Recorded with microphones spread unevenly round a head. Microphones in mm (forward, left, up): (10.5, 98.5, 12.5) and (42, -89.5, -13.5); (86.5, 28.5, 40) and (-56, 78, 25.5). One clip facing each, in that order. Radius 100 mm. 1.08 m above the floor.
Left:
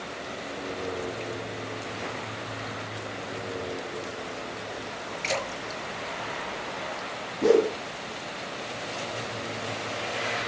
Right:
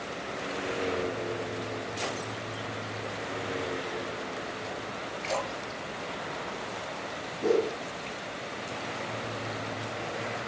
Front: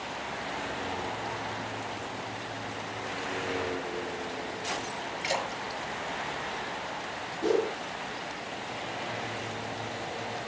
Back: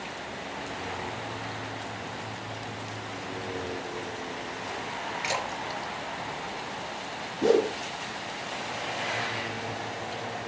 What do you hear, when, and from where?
5.2 s a splash: 130° left, 6.5 m
7.4 s a whoosh: 135° left, 1.0 m